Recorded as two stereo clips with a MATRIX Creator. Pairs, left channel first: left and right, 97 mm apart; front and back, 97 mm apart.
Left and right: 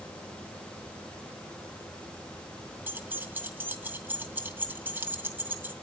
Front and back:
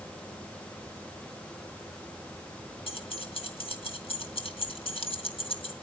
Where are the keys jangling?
20° right, 2.5 m.